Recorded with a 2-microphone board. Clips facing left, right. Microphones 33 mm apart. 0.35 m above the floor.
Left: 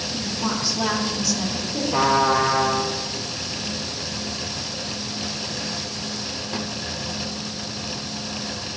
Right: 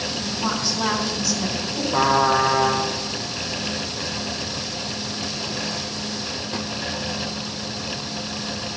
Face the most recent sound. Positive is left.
turn(degrees=85)